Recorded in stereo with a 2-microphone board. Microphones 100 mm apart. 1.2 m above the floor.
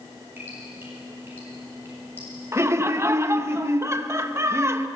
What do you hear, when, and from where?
0.4 s dripping: 20° right (ahead or behind), 7.5 m
2.5 s laughter: 25° right (ahead or behind), 1.1 m